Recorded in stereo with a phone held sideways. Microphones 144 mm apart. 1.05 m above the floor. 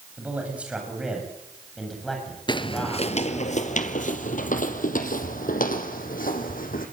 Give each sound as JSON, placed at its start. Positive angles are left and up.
{"t": 0.2, "sound": "a man speaking", "side_deg": -10, "distance_m": 7.5}
{"t": 2.5, "sound": "footsteps", "side_deg": 30, "distance_m": 1.3}